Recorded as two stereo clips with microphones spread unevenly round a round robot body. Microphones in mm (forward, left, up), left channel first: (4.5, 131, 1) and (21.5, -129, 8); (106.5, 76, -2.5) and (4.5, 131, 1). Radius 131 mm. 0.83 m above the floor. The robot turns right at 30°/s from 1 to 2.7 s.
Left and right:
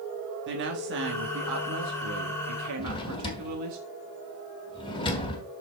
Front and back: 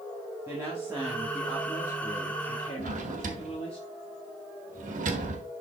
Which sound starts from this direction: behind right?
A woman speaking, at 0.5 s.